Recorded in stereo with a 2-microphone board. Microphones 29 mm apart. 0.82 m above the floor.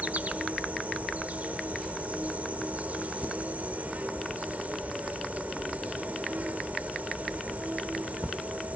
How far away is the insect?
About 1.1 m.